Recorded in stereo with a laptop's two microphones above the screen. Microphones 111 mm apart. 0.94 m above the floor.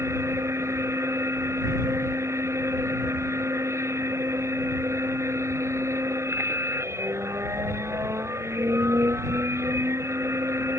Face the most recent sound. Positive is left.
turn(degrees=-25)  # may be behind; listen again after turning